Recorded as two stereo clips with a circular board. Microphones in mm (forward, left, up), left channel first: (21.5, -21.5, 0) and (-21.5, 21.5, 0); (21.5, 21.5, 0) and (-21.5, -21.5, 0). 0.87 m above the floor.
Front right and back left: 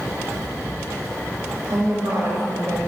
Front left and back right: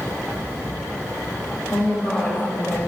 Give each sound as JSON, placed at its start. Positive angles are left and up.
{"t": 1.7, "sound": "a woman speaking", "azimuth_deg": 110, "distance_m": 1.5}